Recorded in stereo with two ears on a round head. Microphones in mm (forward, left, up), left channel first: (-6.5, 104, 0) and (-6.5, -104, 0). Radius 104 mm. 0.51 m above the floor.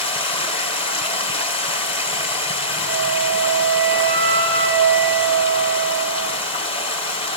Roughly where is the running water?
Left.